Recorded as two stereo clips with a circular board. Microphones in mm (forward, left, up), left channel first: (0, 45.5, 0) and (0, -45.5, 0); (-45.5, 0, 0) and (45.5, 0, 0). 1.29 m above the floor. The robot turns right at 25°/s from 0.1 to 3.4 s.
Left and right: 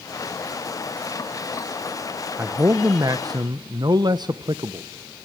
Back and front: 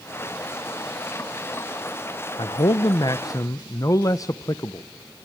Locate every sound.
2.4 s a man speaking: 155° right, 0.7 m; by 4.9 s 130° right, 0.7 m